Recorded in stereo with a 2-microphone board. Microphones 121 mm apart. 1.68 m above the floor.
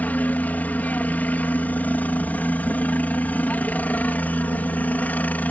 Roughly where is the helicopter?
Centre.